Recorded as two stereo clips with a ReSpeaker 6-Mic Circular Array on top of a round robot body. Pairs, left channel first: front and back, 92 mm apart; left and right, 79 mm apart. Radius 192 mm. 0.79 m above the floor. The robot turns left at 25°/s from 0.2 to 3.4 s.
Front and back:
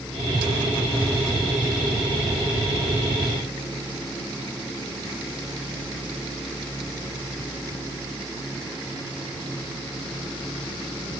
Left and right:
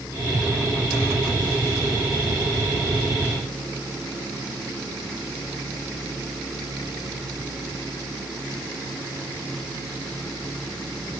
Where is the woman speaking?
I don't hear a woman speaking.